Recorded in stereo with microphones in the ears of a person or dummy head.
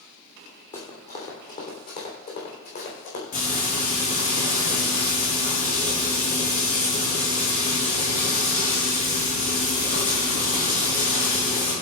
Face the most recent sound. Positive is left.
turn(degrees=40)  # may be behind; listen again after turning